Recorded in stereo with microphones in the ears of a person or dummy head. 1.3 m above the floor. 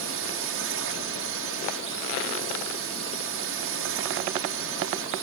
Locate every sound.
0.0 s a drone: 65° right (ahead or behind)